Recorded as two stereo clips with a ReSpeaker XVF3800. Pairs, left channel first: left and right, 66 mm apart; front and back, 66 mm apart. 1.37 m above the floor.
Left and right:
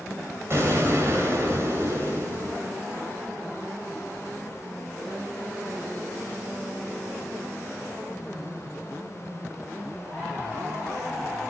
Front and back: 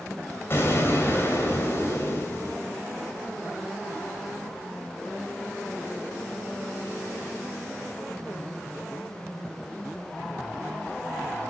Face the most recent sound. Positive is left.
turn(degrees=-50)